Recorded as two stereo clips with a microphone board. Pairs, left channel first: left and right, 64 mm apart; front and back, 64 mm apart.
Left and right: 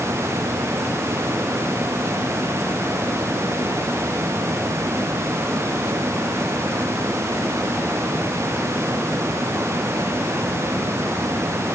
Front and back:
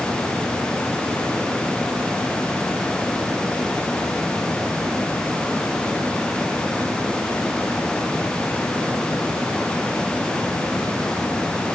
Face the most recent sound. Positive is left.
No sound to turn to.